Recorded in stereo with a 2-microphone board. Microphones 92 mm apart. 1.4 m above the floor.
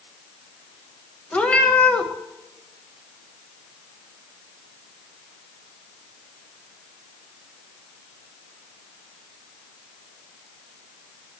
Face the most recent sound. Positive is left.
turn(degrees=15)  # may be behind; listen again after turning